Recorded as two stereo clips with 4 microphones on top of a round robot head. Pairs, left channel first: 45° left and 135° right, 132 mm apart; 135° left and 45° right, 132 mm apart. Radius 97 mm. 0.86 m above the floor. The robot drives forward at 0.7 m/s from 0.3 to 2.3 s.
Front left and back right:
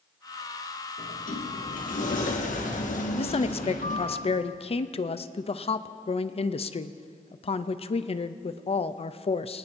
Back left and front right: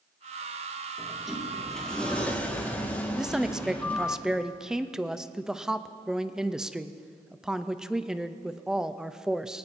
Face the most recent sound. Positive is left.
turn(degrees=35)